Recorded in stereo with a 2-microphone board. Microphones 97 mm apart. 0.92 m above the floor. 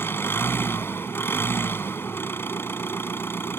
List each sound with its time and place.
0.0 s an engine running: 25° left (ahead or behind)